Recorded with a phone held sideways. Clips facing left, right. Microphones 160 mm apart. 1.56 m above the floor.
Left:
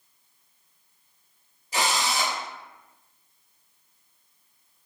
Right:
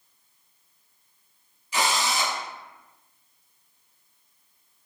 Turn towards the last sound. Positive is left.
turn(degrees=40)  # may be behind; listen again after turning